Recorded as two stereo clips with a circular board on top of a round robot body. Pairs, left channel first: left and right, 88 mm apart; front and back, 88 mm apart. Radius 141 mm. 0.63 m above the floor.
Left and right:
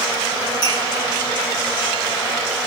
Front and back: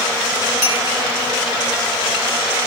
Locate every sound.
0.6 s a clink: 45° left, 8 m